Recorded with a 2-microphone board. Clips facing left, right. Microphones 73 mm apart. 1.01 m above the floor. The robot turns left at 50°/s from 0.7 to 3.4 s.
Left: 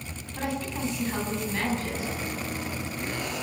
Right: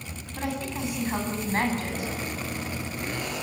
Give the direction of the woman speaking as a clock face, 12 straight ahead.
12 o'clock.